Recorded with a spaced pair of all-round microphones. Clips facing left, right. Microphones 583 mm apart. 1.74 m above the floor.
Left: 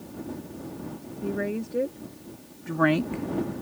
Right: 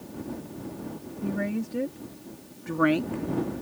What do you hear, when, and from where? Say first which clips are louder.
1.2 s a woman speaking: even; 30° right (ahead or behind); by 3.6 s 75° left (ahead or behind)